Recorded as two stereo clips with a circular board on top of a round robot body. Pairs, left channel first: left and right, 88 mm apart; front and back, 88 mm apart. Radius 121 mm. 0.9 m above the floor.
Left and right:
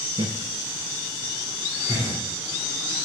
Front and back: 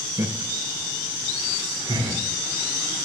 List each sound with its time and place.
0.2 s laughter: 120° right, 0.8 m; by 2.2 s 145° right, 2.5 m